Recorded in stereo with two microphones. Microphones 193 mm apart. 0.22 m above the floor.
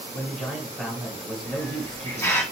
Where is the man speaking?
Centre (ahead or behind), 1.2 m.